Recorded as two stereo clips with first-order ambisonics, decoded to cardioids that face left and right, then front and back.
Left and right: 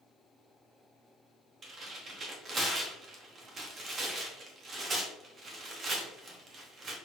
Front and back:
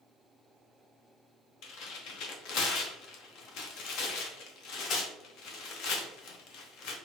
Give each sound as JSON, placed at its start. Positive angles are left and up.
{"t": 1.6, "sound": "tearing paper", "azimuth_deg": -25, "distance_m": 0.9}